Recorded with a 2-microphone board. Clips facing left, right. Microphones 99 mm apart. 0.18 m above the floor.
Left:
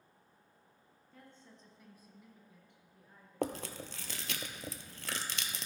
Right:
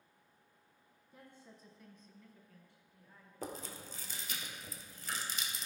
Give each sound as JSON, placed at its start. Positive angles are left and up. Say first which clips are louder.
{"t": 1.1, "sound": "a woman speaking", "louder": "right 1 dB", "side_deg": -15, "distance_m": 1.3}
{"t": 3.4, "sound": "chewing", "louder": "left 8 dB", "side_deg": 85, "distance_m": 0.7}